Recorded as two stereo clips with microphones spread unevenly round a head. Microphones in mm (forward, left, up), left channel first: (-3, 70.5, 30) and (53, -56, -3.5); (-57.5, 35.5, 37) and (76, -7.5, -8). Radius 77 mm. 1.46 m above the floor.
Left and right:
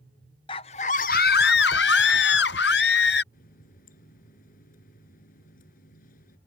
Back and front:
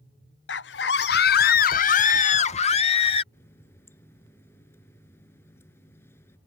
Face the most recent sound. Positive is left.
turn(degrees=90)